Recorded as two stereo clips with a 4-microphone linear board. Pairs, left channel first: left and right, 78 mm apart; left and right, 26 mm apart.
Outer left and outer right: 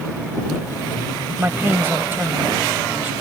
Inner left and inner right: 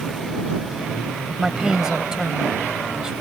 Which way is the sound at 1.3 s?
25° right (ahead or behind).